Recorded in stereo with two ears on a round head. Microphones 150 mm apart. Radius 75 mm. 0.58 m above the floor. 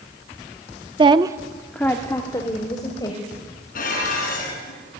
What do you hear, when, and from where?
1.0 s a woman speaking: 30° right (ahead or behind), 0.8 m; by 3.3 s 25° left (ahead or behind), 2.5 m
3.8 s dishes clattering: 55° left (ahead or behind), 5 m